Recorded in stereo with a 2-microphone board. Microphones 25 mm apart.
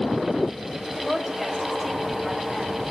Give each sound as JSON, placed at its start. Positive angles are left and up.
{"t": 1.0, "sound": "a woman speaking", "side_deg": 10, "distance_m": 4.0}